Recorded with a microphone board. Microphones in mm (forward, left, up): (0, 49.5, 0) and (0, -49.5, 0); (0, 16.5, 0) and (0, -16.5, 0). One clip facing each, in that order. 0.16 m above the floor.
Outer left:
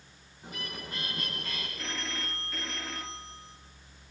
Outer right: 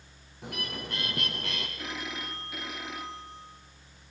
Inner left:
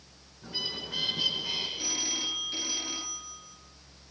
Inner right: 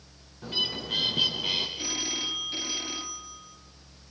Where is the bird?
65° right (ahead or behind), 5.5 m.